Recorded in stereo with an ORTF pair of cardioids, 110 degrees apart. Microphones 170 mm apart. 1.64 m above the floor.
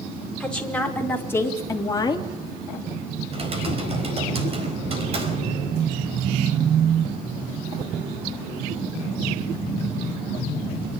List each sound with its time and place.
0.4 s a woman speaking: 5° left, 5 m; by 2.3 s 30° left, 3 m
3.3 s typing on a keyboard: 35° right, 4.5 m